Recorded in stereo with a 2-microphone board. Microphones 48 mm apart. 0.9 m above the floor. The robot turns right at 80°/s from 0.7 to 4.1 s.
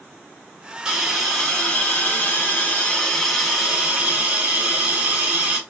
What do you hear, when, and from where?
0.8 s a hiss: 25° right, 1.1 m; by 5.6 s 125° right, 1.1 m